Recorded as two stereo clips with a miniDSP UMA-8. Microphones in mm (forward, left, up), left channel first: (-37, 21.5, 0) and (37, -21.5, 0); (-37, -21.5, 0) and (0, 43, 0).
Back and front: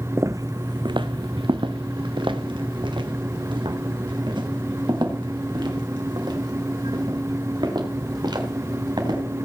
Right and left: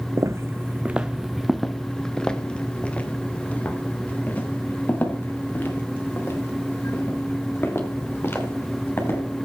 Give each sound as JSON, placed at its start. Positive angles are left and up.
{"t": 0.2, "sound": "footsteps", "azimuth_deg": 25, "distance_m": 0.5}